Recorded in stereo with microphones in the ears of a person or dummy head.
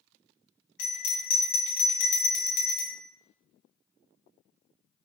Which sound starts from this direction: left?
A bell, at 0.8 s.